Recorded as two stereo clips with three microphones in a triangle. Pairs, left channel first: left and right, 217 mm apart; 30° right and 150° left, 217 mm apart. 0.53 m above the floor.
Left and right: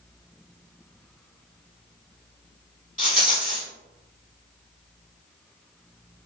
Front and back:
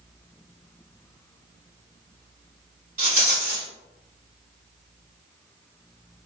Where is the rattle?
125° left, 1.8 m.